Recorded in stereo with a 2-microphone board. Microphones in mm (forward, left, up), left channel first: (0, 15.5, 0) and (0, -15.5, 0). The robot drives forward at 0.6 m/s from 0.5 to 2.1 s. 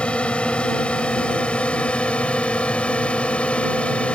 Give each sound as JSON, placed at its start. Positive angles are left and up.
{"t": 0.0, "sound": "a drone", "side_deg": 35}